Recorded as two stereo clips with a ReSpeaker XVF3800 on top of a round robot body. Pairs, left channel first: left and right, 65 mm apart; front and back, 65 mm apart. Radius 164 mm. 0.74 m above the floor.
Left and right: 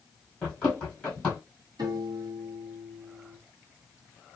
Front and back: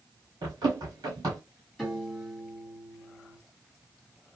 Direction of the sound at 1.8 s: 95° right.